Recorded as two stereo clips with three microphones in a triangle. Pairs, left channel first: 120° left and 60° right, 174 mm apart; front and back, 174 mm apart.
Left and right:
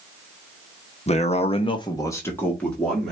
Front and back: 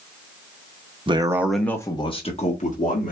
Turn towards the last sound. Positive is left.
turn(degrees=35)